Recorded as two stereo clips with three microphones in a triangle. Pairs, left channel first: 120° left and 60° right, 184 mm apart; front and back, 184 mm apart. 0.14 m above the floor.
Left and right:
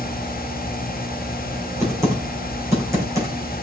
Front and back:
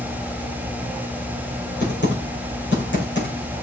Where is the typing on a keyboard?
15° left, 5.5 m.